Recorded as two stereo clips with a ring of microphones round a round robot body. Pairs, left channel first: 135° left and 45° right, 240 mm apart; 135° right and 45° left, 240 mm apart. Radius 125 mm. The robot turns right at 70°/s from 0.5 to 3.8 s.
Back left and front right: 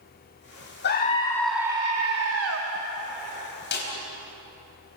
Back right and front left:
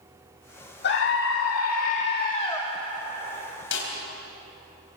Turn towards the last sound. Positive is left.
turn(degrees=-170)